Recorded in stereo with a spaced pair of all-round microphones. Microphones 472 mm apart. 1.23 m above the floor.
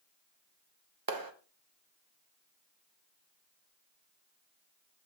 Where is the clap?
45° right (ahead or behind), 1.0 m.